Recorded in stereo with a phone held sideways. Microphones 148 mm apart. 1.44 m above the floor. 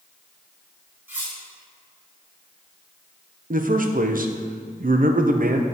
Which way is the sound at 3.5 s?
70° right (ahead or behind).